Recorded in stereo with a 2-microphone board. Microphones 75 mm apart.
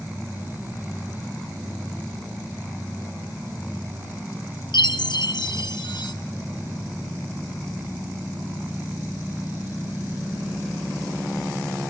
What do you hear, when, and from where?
4.7 s a chime: 70° left (ahead or behind), 1.7 m